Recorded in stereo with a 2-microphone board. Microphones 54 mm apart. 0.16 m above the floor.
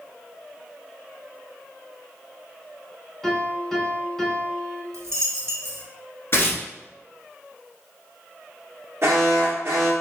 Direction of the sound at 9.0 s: 60° right (ahead or behind).